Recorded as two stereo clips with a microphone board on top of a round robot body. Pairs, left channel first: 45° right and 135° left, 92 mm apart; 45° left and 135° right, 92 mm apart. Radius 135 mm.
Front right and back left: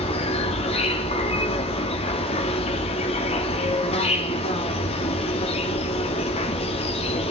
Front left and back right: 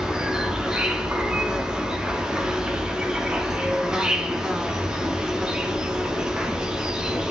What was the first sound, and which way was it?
An insect, 55° right.